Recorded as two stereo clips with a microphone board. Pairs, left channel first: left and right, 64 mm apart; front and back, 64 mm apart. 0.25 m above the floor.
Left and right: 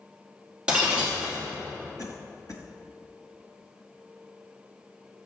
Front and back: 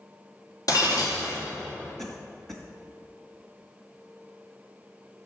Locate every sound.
0.7 s breaking glass: 15° right, 3 m
2.0 s a cough: 85° left, 2.5 m